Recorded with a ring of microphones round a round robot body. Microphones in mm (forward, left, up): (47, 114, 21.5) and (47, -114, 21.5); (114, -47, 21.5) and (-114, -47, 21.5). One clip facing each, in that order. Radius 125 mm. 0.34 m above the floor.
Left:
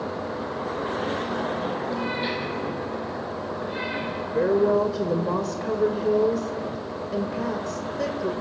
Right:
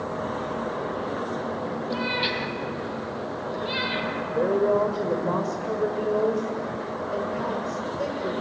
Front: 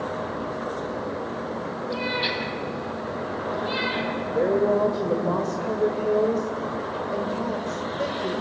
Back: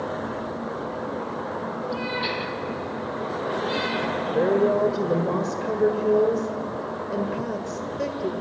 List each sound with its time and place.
1.9 s a cat meowing: 70° right, 3 m; by 4.1 s 90° right, 3 m
4.3 s a woman speaking: 120° left, 1.5 m